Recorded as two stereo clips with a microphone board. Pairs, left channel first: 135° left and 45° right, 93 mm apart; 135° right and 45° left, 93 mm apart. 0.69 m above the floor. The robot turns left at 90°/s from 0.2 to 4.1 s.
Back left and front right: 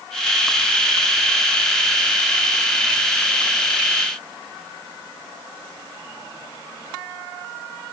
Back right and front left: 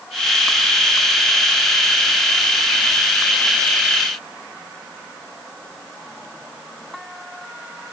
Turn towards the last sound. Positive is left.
No sound to turn to.